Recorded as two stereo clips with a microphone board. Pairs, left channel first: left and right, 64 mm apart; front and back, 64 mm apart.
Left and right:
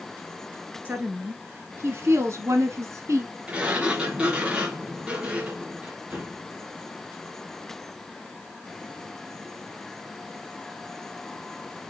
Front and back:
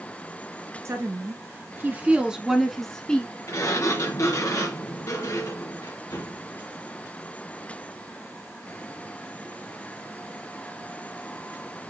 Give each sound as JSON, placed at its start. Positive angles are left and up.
{"t": 0.8, "sound": "a woman speaking", "azimuth_deg": -145, "distance_m": 2.5}
{"t": 3.5, "sound": "a sliding door", "azimuth_deg": -20, "distance_m": 3.0}